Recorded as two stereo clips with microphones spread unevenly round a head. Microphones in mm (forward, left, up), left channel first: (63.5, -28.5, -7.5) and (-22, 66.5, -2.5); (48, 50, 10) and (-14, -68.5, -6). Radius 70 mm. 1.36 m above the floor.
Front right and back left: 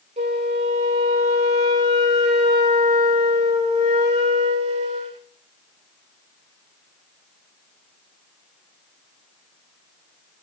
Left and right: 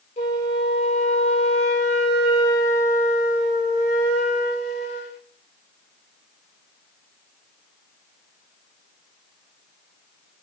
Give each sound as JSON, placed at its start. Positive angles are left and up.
{"t": 0.2, "sound": "a flute", "azimuth_deg": 100, "distance_m": 1.9}